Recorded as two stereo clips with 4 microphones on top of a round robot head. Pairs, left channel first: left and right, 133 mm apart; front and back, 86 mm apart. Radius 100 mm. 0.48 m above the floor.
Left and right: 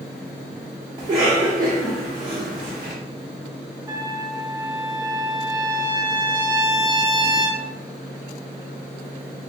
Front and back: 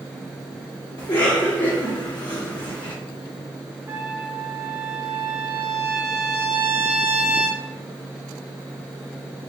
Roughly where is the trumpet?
Behind right.